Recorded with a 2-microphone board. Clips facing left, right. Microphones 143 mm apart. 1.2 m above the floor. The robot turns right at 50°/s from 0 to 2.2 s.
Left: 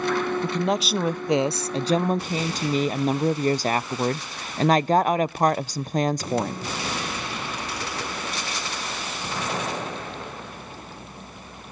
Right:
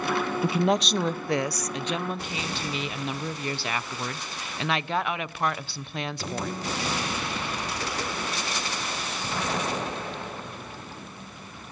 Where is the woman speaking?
15° right, 0.5 m; by 6.7 s 70° left, 0.5 m.